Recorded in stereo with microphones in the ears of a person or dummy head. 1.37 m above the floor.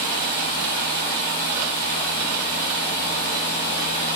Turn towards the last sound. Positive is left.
turn(degrees=-45)  # may be behind; listen again after turning